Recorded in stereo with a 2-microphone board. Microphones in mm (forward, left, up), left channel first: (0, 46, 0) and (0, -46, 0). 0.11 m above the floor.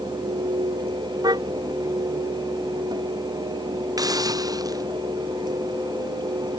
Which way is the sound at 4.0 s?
45° right (ahead or behind).